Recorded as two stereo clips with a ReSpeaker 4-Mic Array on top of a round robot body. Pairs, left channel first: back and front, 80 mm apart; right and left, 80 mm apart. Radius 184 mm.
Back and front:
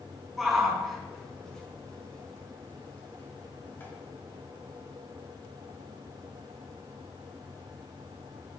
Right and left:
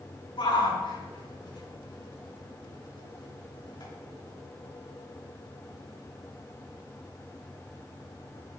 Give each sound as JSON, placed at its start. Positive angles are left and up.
{"t": 0.4, "sound": "a shout", "azimuth_deg": -90, "distance_m": 6.0}